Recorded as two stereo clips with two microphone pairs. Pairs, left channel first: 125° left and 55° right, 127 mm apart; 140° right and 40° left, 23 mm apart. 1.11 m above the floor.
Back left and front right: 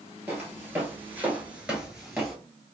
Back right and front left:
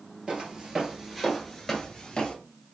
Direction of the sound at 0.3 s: 10° left.